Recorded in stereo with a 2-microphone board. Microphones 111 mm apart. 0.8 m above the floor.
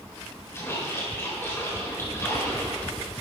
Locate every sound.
0.5 s a splash: 25° left (ahead or behind), 4 m